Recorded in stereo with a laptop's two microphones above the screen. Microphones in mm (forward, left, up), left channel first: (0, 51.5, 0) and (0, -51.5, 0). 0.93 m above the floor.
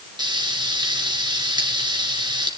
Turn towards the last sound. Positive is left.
turn(degrees=-50)  # may be behind; listen again after turning